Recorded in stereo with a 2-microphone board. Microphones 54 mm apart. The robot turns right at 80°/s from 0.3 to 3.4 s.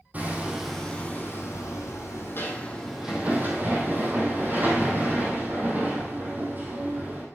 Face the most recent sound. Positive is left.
turn(degrees=-145)